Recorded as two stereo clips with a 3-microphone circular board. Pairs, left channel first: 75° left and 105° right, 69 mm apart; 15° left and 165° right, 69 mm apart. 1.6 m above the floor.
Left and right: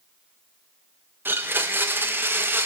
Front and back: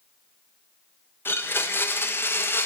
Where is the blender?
45° right, 0.5 m.